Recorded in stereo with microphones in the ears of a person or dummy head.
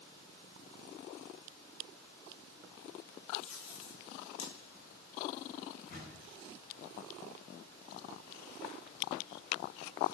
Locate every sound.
3.4 s tape being pulled: 85° left, 2.5 m
5.9 s a door slam: 55° left (ahead or behind), 5.5 m